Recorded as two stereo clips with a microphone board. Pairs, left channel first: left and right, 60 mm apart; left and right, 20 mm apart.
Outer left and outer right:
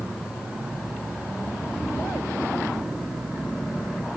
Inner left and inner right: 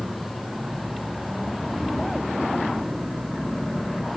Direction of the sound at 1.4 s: 70° left (ahead or behind).